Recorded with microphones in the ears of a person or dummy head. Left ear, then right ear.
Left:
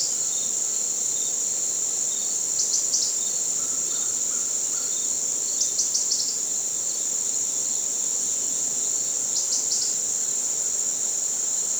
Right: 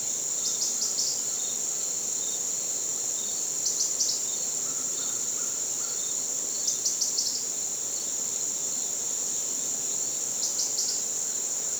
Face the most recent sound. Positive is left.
No sound to turn to.